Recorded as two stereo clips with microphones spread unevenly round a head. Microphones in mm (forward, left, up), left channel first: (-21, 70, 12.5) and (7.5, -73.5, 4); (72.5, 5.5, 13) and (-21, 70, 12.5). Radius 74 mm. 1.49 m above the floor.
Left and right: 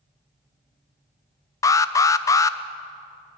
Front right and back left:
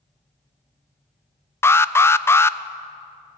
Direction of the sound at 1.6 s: 30° left.